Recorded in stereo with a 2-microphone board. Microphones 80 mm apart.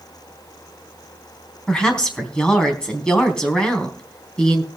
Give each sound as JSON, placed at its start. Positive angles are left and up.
{"t": 1.7, "sound": "a woman speaking", "side_deg": 10, "distance_m": 4.0}